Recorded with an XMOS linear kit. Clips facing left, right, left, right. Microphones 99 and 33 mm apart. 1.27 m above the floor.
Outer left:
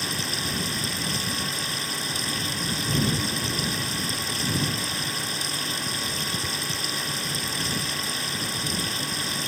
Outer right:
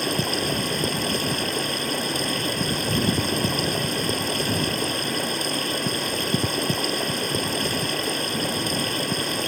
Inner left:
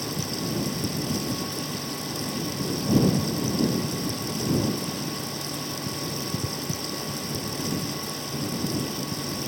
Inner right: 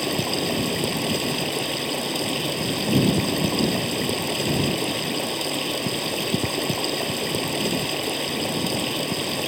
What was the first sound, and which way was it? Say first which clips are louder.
Running water: outer right 7 dB, inner right 6 dB; 55° right (ahead or behind).